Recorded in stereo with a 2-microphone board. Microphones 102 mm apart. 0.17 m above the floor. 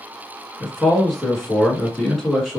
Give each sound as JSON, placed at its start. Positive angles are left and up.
{"t": 0.6, "sound": "a man speaking", "side_deg": 0, "distance_m": 1.8}